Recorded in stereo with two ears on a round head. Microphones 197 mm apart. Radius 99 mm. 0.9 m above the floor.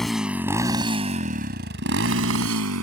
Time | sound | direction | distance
0.0 | a motorcycle | centre (ahead or behind) | ?